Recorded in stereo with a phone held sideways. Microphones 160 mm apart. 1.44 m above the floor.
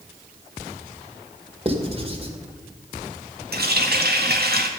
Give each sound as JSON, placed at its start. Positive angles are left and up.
{"t": 1.6, "sound": "writing", "side_deg": -35, "distance_m": 2.0}
{"t": 3.5, "sound": "a running tap", "side_deg": -75, "distance_m": 1.7}